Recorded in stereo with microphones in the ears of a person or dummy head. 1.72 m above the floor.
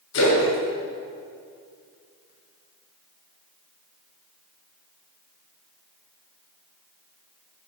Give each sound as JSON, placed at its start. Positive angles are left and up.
{"t": 0.1, "sound": "a splash", "side_deg": 80, "distance_m": 7.0}